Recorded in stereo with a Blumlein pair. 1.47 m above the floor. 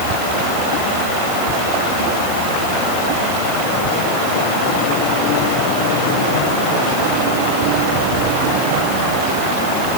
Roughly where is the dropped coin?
No dropped coin in this recording.